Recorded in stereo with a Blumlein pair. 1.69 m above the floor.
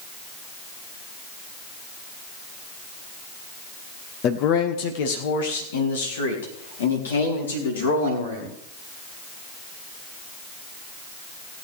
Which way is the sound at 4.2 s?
35° left.